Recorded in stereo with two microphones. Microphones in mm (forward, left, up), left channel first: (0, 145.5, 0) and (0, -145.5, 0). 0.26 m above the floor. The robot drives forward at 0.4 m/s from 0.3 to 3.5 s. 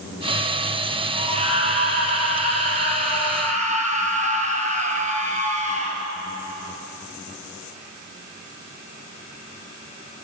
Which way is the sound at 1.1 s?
20° right (ahead or behind).